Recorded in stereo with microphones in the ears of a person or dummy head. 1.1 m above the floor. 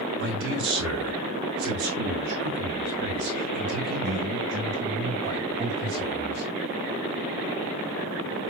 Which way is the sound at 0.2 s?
60° right (ahead or behind).